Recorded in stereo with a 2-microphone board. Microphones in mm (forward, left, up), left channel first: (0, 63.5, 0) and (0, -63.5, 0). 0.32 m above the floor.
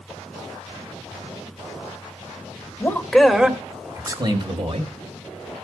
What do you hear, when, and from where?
2.8 s a man speaking: 20° left (ahead or behind), 1.5 m; by 4.9 s 50° right (ahead or behind), 2 m